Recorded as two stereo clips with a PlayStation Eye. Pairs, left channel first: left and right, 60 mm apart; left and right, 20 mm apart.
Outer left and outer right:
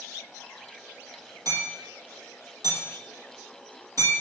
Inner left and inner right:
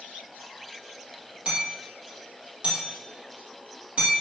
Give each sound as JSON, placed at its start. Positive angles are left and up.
{"t": 1.4, "sound": "hammering", "side_deg": -75, "distance_m": 5.5}